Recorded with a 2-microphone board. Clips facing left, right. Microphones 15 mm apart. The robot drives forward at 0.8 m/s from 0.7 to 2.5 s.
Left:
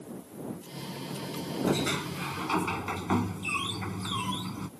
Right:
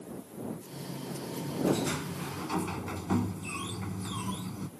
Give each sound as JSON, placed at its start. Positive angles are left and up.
{"t": 1.7, "sound": "a sliding door", "side_deg": 30}